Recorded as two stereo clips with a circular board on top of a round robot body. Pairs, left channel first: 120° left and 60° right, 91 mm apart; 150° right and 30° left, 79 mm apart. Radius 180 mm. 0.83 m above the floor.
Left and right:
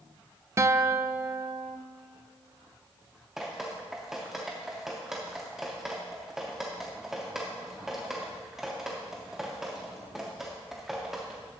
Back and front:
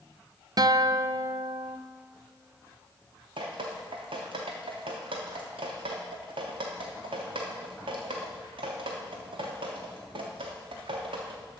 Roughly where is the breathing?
I don't hear breathing.